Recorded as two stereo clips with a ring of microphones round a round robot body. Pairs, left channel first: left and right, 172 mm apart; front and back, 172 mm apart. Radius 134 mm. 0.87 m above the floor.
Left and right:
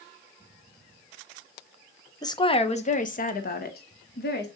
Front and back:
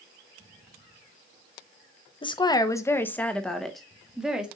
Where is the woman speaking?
35° left, 0.9 m; by 4.5 s 95° left, 1.8 m.